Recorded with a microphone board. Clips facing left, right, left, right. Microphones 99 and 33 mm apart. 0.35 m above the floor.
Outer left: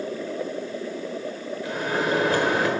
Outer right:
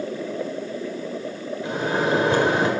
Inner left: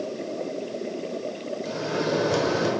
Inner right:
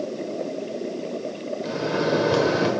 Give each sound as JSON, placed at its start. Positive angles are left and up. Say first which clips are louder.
{"t": 1.6, "sound": "a microwave", "louder": "outer right 3 dB, inner right 3 dB", "side_deg": -25, "distance_m": 1.2}